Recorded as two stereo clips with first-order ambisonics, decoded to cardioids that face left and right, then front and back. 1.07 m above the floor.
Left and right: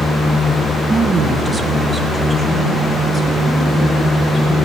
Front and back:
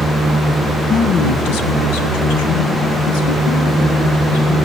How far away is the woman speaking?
About 0.8 m.